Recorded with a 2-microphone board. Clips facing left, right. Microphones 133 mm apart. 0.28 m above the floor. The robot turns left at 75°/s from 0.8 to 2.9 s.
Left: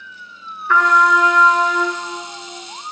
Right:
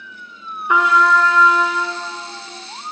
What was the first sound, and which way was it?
A trumpet, 165° right.